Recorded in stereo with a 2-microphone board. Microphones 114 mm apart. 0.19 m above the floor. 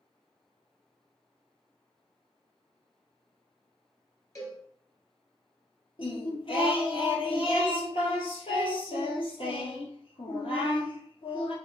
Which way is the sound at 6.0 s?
55° left (ahead or behind).